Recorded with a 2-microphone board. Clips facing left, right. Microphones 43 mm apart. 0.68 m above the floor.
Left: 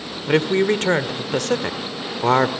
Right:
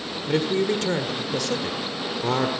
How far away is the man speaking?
About 1.8 m.